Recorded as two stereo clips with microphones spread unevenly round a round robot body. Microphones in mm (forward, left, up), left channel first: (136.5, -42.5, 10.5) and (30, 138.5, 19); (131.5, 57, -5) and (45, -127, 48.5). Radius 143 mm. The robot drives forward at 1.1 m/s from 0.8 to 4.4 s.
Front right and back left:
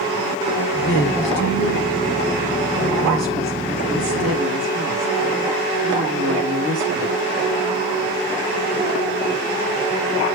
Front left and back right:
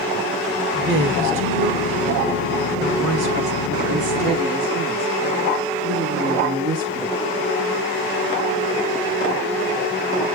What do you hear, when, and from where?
0.7 s a woman speaking: 80° right, 2.5 m; by 7.2 s 150° right, 4.5 m